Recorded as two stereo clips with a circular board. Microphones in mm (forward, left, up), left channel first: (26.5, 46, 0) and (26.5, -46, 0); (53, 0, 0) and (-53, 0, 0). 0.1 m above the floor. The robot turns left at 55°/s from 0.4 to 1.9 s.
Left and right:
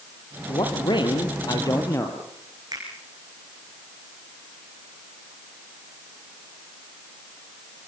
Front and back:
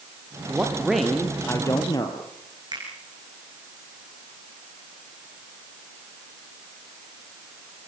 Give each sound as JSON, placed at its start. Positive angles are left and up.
{"t": 0.5, "sound": "a man speaking", "azimuth_deg": 115, "distance_m": 3.0}
{"t": 2.7, "sound": "a finger snap", "azimuth_deg": -135, "distance_m": 7.0}